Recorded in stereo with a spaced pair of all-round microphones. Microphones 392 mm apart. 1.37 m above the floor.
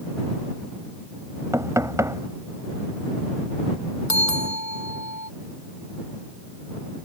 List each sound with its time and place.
1.5 s knocking: 5° right (ahead or behind)
4.1 s a bell: 45° left (ahead or behind)